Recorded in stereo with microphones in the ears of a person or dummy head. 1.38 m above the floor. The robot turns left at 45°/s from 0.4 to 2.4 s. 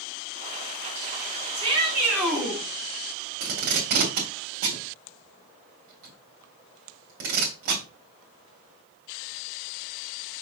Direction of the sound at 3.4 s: 50° right (ahead or behind).